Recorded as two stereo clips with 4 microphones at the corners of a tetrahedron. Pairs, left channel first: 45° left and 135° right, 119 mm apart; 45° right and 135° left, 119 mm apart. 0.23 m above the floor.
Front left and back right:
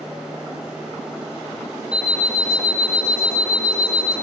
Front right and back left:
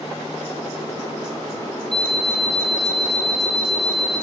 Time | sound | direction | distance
1.9 | an alarm clock | 10° right | 3 m